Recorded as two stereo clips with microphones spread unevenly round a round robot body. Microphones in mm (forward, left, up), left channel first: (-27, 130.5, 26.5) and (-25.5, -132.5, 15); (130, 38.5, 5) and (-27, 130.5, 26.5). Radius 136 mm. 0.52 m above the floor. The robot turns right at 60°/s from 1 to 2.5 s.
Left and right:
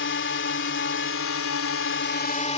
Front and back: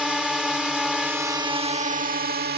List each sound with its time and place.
0.0 s a drone: 60° left; by 2.6 s 150° left